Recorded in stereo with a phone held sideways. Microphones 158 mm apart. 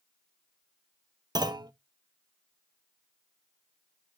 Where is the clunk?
25° right (ahead or behind), 0.7 m.